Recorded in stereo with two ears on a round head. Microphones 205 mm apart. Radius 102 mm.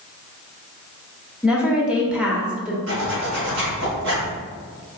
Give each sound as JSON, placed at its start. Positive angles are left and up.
{"t": 1.4, "sound": "a woman speaking", "side_deg": -5, "distance_m": 0.9}
{"t": 2.9, "sound": "a zipper", "side_deg": -60, "distance_m": 2.0}